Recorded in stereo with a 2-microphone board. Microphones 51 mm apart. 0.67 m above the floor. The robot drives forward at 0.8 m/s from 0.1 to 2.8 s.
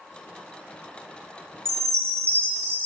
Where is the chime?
55° right (ahead or behind), 1.2 m; by 2.9 s 50° right (ahead or behind), 1.3 m.